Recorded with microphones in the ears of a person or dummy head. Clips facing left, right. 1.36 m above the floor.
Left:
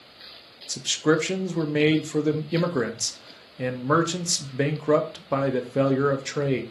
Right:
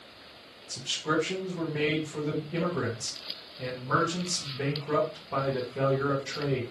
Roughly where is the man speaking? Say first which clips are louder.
Left 9 dB; left.